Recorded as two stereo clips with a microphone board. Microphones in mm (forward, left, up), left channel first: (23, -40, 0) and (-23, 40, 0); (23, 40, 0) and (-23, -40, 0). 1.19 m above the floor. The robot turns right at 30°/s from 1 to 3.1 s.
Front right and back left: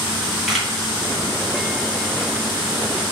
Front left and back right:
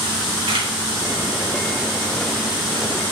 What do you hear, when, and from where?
0.5 s a camera shutter: 150° right, 1.7 m